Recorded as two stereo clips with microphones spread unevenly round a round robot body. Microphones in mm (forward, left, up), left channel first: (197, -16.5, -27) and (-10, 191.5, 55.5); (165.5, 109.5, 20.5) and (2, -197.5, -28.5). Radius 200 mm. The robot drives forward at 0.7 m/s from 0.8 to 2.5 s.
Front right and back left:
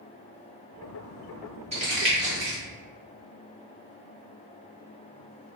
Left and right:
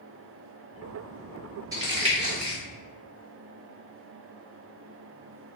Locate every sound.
1.7 s crumpling: 150° right, 0.9 m; by 2.6 s 170° right, 1.2 m